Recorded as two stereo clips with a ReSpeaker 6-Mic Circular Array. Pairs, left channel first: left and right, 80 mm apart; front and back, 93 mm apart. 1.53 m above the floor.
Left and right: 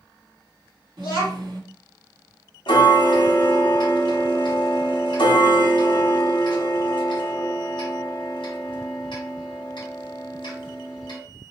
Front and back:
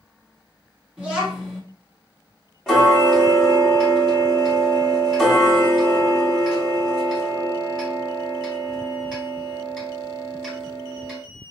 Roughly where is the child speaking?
Right.